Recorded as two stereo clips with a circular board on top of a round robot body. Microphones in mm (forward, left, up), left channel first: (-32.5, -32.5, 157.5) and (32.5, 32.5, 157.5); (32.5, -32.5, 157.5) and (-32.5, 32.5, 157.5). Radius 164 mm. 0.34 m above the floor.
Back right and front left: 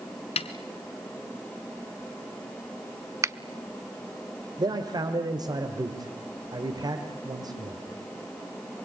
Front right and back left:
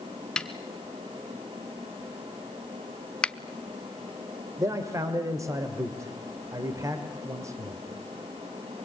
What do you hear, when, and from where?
0.4 s a snare drum: 130° right, 0.8 m
3.2 s a finger snap: 25° left, 0.8 m
4.6 s a man speaking: 85° left, 1.7 m